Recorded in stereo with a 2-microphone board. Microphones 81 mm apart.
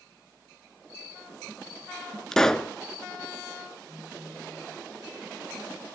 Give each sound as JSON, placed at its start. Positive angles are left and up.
{"t": 2.3, "sound": "a pop", "side_deg": 5, "distance_m": 0.7}
{"t": 3.9, "sound": "a phone buzzing", "side_deg": -65, "distance_m": 8.0}